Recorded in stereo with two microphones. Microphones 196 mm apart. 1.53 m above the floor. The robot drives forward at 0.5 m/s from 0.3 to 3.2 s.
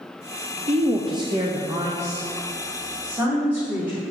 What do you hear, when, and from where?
0.7 s a woman speaking: 30° right (ahead or behind), 0.6 m; by 4.0 s 10° right (ahead or behind), 1.8 m